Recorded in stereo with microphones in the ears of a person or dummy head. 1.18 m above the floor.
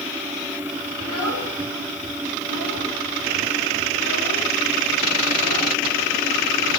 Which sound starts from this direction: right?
A child speaking, at 1.0 s.